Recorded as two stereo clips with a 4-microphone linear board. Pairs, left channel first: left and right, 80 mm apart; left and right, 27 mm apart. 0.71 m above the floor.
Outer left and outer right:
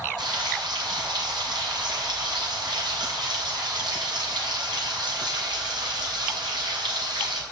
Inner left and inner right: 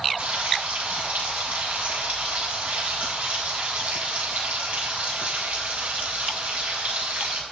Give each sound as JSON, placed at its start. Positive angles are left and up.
{"t": 0.2, "sound": "frying", "side_deg": -75, "distance_m": 5.5}